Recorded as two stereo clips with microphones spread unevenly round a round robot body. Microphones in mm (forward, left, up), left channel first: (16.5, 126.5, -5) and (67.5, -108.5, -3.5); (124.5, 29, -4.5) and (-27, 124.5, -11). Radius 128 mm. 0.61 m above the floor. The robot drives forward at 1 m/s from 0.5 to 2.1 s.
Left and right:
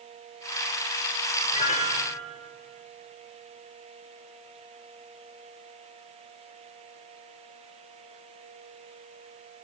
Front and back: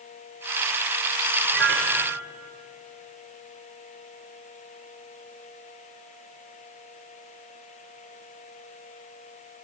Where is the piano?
170° left, 2 m.